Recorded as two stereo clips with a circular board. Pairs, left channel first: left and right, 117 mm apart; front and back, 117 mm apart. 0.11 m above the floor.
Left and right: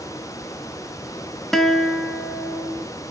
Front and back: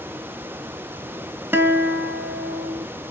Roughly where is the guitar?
Behind.